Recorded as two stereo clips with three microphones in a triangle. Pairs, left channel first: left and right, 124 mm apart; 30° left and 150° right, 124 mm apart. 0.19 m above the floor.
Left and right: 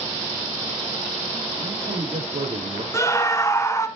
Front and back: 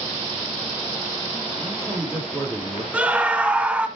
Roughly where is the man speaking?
Ahead right.